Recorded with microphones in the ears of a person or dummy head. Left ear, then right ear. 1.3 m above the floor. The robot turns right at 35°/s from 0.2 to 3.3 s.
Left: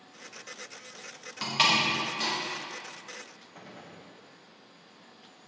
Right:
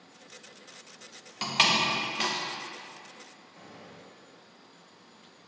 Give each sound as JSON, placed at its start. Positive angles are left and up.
{"t": 1.4, "sound": "a door slam", "side_deg": -10, "distance_m": 0.5}
{"t": 3.5, "sound": "a gunshot", "side_deg": 40, "distance_m": 0.5}